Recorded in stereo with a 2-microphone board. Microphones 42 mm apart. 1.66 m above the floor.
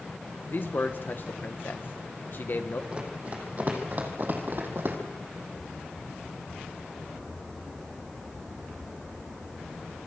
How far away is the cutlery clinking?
No cutlery clinking in this recording.